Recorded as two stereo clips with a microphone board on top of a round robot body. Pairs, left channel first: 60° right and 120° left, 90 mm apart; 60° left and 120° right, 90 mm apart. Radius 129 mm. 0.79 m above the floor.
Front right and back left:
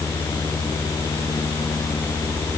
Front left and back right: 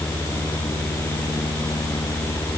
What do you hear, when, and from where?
Only background noise.